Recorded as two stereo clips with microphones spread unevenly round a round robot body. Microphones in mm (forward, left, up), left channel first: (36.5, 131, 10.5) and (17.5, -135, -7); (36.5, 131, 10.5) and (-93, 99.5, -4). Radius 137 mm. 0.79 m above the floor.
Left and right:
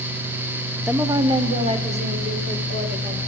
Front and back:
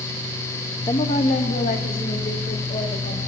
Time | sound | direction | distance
0.9 | a woman speaking | 15° right | 0.6 m